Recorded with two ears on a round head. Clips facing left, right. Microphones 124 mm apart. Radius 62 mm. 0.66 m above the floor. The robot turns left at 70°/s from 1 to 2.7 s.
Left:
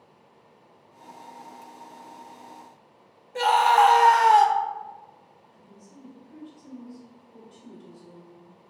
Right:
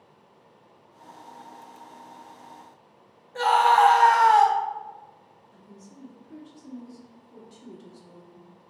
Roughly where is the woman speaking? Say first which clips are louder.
Right 2 dB; right.